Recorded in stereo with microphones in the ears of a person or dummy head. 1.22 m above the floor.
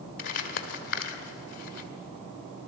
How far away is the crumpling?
About 2 m.